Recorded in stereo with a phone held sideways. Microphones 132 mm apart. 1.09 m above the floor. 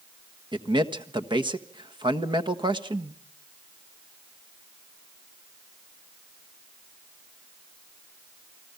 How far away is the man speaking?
About 1.4 m.